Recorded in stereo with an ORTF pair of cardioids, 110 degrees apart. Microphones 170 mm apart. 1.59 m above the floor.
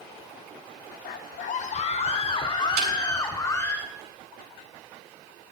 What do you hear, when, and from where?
1.1 s a scream: 60° left, 1.0 m; by 3.8 s 15° left, 1.9 m
2.8 s a snare drum: 65° right, 6 m